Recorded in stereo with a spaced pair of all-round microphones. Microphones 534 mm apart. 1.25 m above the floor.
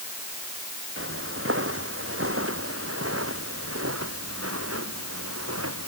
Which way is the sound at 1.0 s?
20° right (ahead or behind).